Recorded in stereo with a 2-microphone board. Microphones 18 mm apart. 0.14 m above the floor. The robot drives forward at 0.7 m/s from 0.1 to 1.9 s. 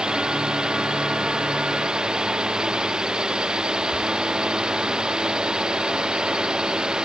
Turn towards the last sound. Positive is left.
turn(degrees=-45)  # may be behind; listen again after turning